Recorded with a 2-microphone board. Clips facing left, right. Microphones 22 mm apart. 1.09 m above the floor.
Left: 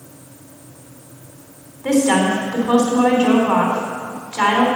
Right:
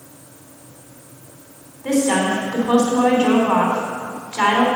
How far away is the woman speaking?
About 3 m.